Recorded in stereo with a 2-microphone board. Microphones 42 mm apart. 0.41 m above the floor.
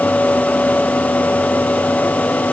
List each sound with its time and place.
Only background noise.